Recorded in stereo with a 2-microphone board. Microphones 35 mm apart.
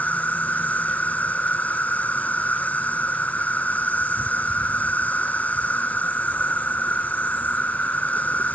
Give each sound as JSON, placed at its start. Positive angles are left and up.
{"t": 0.0, "sound": "an insect", "side_deg": 50}